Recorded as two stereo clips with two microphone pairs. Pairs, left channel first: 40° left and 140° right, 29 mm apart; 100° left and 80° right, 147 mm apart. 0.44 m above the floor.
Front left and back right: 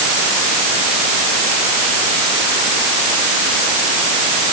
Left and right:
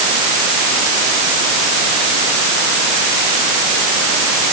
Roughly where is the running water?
No running water in this recording.